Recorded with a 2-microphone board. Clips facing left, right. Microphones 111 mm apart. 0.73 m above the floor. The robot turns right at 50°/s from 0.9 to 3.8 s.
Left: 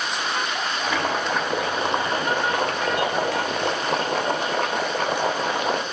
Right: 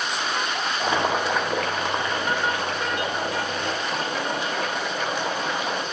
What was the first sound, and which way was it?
Boiling, 25° right.